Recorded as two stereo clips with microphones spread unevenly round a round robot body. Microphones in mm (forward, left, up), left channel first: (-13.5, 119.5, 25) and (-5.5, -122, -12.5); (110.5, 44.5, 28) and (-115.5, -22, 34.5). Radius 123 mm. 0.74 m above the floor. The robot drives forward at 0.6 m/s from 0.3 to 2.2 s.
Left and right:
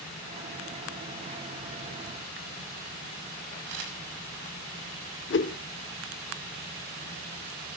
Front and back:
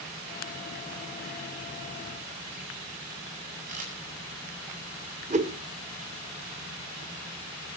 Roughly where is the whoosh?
Behind left.